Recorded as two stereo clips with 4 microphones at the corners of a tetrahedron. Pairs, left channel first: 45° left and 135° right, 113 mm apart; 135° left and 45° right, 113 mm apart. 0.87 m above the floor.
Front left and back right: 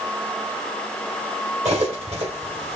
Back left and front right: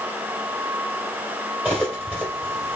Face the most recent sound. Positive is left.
turn(degrees=-120)